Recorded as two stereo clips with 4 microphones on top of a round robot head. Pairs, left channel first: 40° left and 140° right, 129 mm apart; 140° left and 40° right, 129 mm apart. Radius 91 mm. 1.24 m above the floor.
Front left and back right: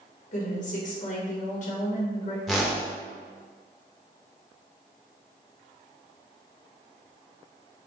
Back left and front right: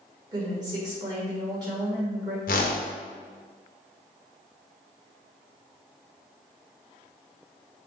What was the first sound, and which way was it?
A woman speaking, 20° left.